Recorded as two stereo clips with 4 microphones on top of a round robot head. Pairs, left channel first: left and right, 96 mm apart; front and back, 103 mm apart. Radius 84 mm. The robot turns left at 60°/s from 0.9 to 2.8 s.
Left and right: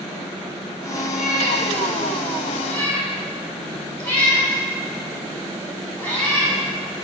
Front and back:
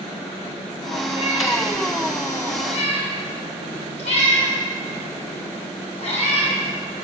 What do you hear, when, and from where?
1.1 s a cat meowing: 115° left, 5.5 m; by 6.5 s 15° left, 5.5 m